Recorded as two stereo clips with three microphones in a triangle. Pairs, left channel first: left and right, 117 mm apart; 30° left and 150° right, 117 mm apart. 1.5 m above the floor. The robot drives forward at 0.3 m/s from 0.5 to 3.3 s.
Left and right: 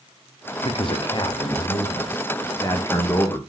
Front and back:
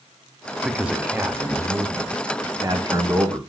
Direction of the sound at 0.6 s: 125° left.